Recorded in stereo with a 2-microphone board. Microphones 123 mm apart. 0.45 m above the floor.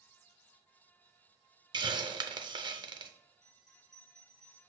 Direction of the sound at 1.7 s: 35° right (ahead or behind).